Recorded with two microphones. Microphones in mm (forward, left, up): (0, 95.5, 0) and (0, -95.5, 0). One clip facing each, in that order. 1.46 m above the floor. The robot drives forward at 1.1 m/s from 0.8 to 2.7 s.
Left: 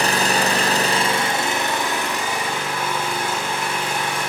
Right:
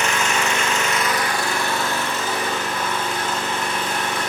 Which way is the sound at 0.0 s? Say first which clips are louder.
Left 3 dB; 35° left (ahead or behind).